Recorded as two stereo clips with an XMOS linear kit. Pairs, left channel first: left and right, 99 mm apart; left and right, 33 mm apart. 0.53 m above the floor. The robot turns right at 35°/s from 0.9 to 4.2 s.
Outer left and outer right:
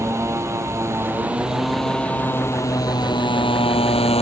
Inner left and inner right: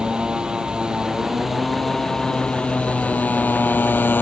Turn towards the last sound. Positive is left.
turn(degrees=85)